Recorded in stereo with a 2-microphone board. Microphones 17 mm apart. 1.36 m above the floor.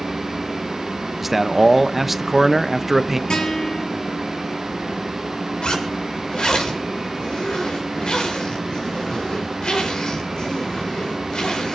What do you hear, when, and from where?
1.2 s a man speaking: 15° right (ahead or behind), 0.7 m
3.3 s a guitar: 80° left, 6 m
5.6 s a zipper: 75° left (ahead or behind), 4 m